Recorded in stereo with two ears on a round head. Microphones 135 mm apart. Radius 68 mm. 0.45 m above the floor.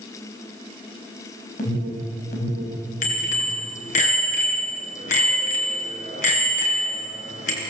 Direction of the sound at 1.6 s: 55° left (ahead or behind).